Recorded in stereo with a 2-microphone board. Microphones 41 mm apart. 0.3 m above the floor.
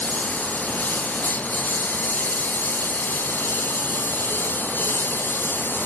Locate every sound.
0.0 s a lawn mower: 40° left (ahead or behind); by 5.9 s 50° left (ahead or behind)